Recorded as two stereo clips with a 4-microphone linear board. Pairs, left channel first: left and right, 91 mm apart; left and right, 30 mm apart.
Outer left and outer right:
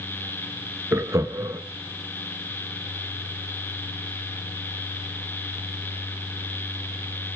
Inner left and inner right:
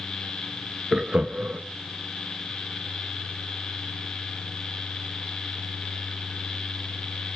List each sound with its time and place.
0.9 s laughter: 30° right (ahead or behind), 1.2 m